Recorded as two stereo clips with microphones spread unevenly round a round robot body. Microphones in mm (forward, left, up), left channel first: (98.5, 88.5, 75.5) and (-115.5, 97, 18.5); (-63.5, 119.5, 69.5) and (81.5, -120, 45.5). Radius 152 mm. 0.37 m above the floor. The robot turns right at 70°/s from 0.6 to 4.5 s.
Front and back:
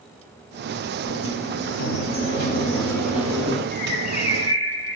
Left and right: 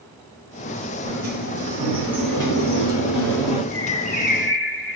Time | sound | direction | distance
1.1 | a sliding door | 50° right | 4.5 m
3.7 | a bird | 30° left | 1.8 m